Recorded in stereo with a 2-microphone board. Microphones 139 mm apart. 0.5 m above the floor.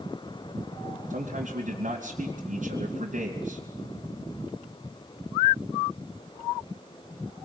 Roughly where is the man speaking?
Right.